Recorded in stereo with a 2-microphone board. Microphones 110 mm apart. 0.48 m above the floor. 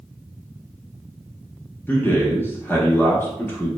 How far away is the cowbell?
I don't hear a cowbell.